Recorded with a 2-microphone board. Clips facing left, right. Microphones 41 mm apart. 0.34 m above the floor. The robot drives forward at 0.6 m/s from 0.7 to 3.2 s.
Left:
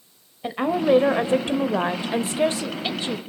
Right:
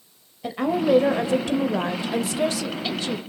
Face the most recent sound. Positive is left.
turn(degrees=25)  # may be behind; listen again after turning